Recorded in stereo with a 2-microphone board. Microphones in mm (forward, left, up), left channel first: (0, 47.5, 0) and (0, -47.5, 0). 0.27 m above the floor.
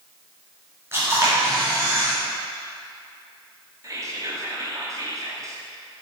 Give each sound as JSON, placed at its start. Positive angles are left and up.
{"t": 0.9, "sound": "a camera shutter", "side_deg": -25, "distance_m": 3.0}
{"t": 3.8, "sound": "whispering", "side_deg": -35, "distance_m": 1.7}